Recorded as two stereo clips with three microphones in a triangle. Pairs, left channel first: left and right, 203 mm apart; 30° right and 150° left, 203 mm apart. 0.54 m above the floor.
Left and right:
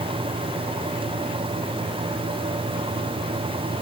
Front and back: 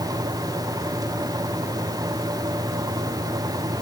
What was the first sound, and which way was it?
Only background noise.